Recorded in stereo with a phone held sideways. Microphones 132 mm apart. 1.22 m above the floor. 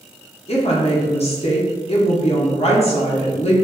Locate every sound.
0.5 s a woman speaking: 50° left (ahead or behind), 0.6 m